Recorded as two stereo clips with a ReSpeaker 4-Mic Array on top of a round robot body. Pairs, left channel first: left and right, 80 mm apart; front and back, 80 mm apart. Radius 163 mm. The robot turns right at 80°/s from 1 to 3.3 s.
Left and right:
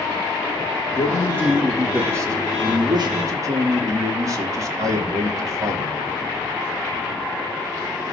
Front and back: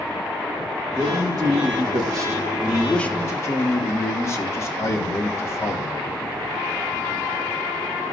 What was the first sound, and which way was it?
A man speaking, 125° left.